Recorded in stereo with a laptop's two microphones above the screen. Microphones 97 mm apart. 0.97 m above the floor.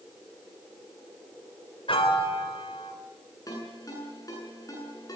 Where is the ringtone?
40° left (ahead or behind), 9 m.